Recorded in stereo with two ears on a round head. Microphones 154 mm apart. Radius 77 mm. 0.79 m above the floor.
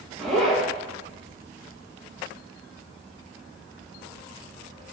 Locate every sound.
0.2 s a zipper: centre (ahead or behind), 0.9 m